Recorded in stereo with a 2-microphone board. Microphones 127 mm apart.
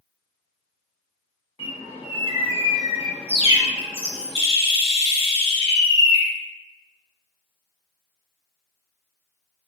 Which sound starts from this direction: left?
A bird, at 1.6 s.